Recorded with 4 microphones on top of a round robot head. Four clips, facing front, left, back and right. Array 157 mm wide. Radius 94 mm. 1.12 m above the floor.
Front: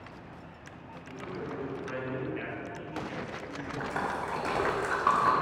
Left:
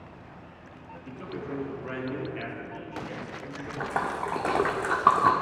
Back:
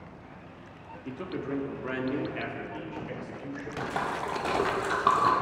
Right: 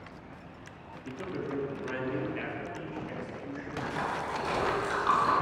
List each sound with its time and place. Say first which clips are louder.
1.1 s a man speaking: right 1 dB, back 5 dB; 170° right, 3 m; by 3.7 s 165° left, 5 m
3.8 s a splash: left 4 dB, back 2 dB; 110° left, 1.7 m